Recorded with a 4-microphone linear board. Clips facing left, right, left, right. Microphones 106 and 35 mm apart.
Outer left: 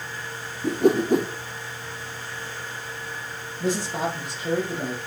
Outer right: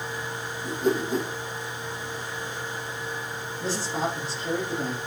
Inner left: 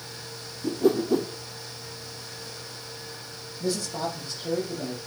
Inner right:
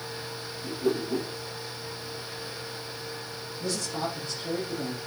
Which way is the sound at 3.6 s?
20° left (ahead or behind).